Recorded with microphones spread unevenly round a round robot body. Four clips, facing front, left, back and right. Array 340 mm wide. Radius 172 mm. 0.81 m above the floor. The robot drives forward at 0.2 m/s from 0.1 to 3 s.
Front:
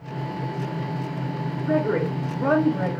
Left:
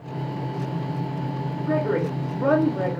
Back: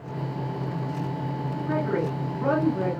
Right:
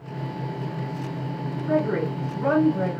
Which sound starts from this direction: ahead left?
A woman speaking, at 1.7 s.